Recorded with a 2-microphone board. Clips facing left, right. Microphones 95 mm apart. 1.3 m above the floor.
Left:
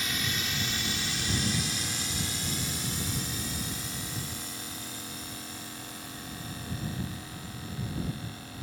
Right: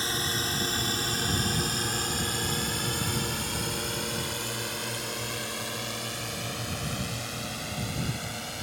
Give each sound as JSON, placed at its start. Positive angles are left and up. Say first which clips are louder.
{"t": 0.0, "sound": "a drone", "louder": "right 3 dB", "side_deg": -35}